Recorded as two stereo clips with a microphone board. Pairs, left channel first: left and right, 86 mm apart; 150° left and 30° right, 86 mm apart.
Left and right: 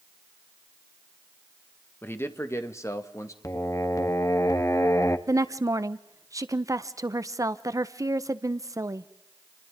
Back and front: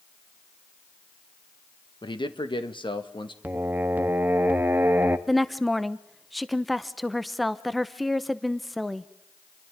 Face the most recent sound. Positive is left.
turn(degrees=-120)